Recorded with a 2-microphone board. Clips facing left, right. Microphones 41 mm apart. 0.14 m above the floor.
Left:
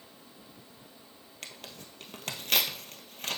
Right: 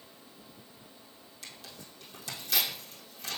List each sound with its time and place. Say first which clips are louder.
1.4 s tearing paper: left 3 dB; 65° left (ahead or behind), 1.4 m